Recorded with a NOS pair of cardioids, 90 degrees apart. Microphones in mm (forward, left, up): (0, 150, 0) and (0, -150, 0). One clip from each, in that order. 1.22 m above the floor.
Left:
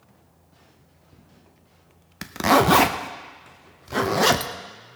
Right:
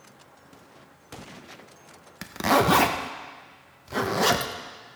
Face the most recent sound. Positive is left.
turn(degrees=15)